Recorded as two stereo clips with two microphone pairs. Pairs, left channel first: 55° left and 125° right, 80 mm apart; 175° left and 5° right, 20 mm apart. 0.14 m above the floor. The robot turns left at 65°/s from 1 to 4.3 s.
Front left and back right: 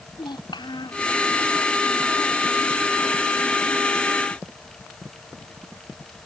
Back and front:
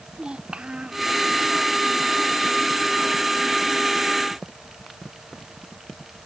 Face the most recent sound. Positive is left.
turn(degrees=170)